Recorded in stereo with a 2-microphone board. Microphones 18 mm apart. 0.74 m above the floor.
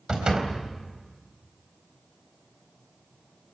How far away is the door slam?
About 3.5 m.